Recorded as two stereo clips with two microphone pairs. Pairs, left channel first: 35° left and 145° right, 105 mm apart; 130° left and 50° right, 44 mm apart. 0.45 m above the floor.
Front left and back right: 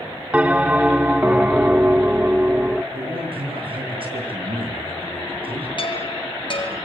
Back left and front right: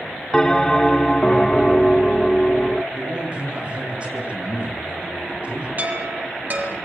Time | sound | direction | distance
0.3 | a bell | 170° left | 0.7 m
2.9 | a man speaking | 115° right | 8 m
5.8 | a chime | 5° right | 4.5 m